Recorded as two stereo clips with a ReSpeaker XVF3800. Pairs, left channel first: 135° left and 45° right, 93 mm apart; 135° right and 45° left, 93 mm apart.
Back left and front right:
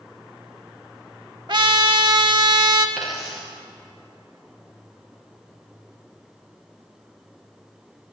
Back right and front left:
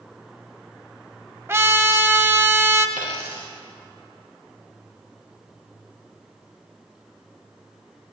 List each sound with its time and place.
1.5 s a trumpet: 15° right, 0.6 m
3.0 s a dropped coin: 135° right, 4 m